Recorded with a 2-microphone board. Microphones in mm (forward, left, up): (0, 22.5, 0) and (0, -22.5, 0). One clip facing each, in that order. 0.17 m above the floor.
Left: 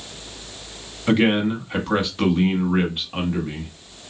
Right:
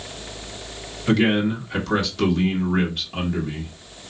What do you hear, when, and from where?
1.1 s a man speaking: 20° left (ahead or behind), 1.1 m